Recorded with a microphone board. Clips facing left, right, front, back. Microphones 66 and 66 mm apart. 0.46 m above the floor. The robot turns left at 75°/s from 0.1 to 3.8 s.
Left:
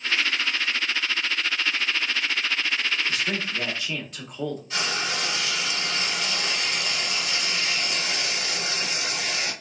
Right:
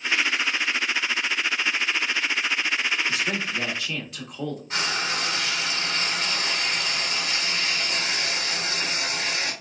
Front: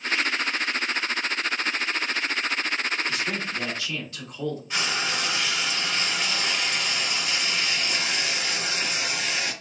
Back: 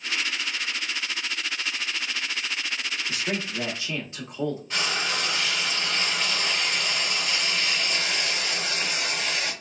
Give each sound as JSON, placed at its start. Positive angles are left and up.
{"t": 3.1, "sound": "a man speaking", "azimuth_deg": -125, "distance_m": 0.7}
{"t": 4.7, "sound": "frying", "azimuth_deg": -80, "distance_m": 1.7}